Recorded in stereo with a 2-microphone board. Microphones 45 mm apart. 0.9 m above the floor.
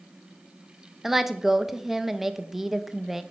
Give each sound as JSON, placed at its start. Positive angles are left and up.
{"t": 1.0, "sound": "a woman speaking", "side_deg": -5, "distance_m": 0.6}